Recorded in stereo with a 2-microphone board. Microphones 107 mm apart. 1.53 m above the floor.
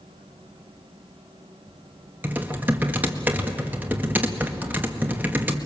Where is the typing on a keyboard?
15° right (ahead or behind), 1.8 m.